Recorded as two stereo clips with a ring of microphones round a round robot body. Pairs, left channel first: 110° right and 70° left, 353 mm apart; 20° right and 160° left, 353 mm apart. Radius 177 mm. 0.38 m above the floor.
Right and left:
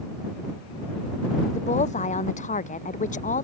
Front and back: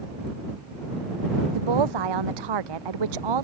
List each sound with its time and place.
1.5 s a woman speaking: 175° left; by 3.5 s straight behind